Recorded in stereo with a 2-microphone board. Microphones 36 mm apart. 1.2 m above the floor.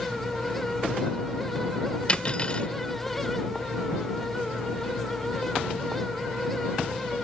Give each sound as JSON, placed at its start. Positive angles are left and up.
{"t": 2.1, "sound": "cutlery clinking", "side_deg": 30}